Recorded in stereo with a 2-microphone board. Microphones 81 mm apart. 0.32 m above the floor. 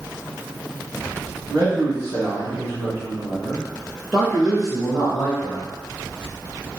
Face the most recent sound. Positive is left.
turn(degrees=40)  # may be behind; listen again after turning